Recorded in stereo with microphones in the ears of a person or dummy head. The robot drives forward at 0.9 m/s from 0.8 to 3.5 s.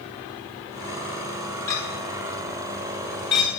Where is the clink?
15° left (ahead or behind), 1.6 m; by 3.5 s 25° left (ahead or behind), 0.9 m.